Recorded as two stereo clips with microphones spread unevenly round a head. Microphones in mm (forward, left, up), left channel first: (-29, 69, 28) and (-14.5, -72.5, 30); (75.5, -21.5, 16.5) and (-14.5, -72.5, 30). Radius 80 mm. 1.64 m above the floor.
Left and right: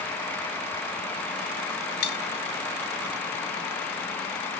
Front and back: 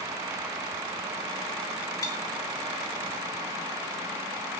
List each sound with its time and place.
2.0 s cutlery clinking: 105° left, 1.3 m